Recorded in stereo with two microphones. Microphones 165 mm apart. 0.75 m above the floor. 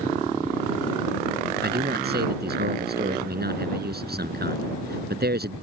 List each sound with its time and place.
1.6 s a man speaking: 80° right